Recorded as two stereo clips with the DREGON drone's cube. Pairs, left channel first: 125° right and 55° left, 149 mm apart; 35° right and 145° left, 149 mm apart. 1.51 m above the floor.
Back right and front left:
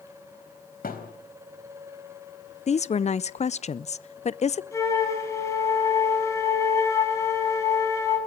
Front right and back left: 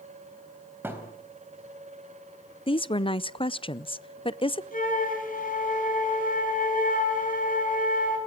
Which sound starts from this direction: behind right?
A thud, at 0.8 s.